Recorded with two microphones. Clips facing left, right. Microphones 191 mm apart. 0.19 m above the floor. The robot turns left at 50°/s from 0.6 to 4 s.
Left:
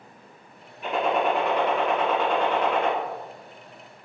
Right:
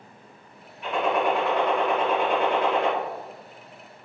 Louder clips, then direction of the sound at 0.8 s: Even; 50° left.